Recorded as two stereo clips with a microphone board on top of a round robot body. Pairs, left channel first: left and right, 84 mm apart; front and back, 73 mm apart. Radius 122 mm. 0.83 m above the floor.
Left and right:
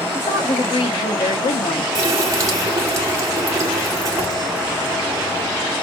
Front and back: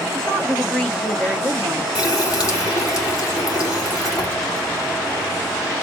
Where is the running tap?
35° right, 2 m.